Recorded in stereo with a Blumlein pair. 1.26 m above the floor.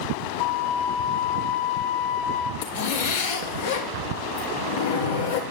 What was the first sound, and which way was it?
A flute, 60° left.